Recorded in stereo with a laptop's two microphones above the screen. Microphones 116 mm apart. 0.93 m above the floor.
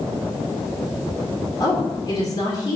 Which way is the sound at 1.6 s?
35° left (ahead or behind).